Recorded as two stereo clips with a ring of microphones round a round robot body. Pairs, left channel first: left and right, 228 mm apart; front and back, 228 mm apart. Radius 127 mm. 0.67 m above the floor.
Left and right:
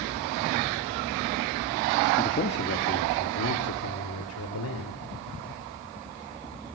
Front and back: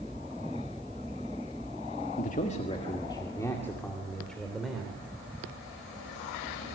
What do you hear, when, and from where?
2.2 s a man speaking: 45° left, 1.5 m; by 5.0 s 95° left, 3.5 m